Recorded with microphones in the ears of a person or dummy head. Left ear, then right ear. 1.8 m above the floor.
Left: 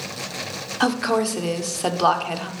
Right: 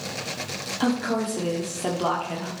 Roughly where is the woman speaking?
Left.